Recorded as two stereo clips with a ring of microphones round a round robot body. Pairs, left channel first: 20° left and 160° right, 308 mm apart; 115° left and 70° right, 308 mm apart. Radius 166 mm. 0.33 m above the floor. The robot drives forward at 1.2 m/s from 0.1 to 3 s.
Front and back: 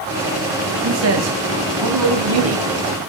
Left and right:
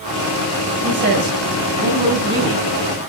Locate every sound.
0.8 s a man speaking: 115° right, 2.5 m; by 2.6 s 145° right, 4 m